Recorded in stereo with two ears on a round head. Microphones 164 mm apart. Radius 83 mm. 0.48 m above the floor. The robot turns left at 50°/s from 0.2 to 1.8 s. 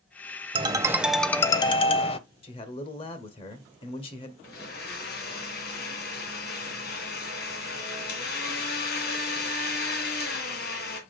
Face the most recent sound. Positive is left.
turn(degrees=60)  # may be behind; listen again after turning